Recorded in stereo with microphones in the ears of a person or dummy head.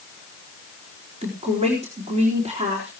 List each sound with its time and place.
1.2 s a woman speaking: 35° right (ahead or behind), 4 m